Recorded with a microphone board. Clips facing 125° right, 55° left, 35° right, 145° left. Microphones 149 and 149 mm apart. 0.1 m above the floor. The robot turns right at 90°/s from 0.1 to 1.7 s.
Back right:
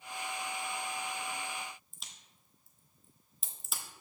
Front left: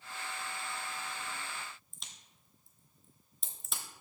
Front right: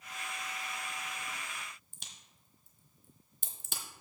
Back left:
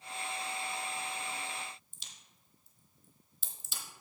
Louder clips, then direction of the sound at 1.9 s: Even, front right 2 dB; 35° right.